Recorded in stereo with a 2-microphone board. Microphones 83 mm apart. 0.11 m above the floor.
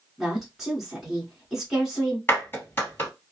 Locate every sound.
0.2 s a woman speaking: 5° right (ahead or behind), 1.4 m
2.3 s a clap: 25° left (ahead or behind), 2 m